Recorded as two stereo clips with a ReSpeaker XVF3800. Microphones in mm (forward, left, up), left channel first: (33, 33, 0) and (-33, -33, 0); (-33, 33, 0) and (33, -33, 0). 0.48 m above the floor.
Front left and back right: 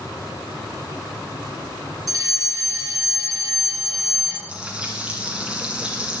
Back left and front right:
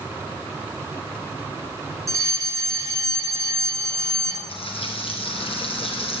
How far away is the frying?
About 3.5 m.